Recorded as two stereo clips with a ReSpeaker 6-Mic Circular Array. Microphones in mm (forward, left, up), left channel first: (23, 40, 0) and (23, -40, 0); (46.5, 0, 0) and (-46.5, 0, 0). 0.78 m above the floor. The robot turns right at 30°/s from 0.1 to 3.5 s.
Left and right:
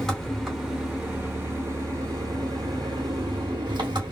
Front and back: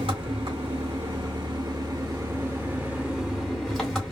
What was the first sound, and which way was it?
An engine running, 175° left.